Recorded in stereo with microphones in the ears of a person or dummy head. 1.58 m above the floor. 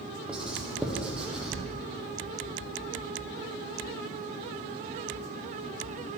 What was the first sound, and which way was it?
Writing, 5° right (ahead or behind).